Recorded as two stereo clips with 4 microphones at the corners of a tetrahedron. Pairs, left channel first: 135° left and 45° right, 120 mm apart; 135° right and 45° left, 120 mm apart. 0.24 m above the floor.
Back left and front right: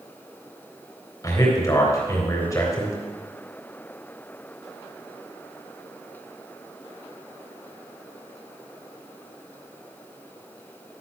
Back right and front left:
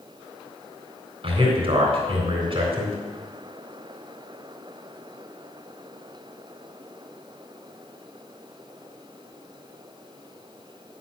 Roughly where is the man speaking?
Left.